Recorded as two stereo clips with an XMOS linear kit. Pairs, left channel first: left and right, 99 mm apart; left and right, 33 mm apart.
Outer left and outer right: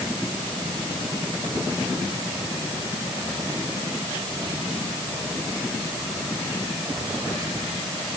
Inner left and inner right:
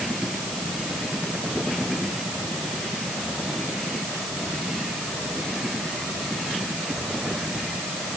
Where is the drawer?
No drawer in this recording.